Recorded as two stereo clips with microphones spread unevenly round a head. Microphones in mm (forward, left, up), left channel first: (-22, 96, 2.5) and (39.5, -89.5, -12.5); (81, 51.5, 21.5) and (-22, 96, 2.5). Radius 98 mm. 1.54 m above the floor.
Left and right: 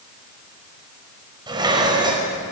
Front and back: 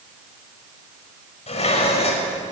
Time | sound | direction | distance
1.5 | dishes clattering | straight ahead | 5.5 m